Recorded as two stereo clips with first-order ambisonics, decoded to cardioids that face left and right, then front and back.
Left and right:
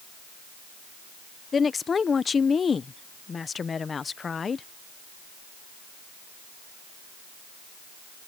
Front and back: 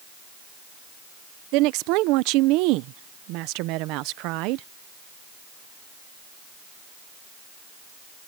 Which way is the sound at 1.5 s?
160° left.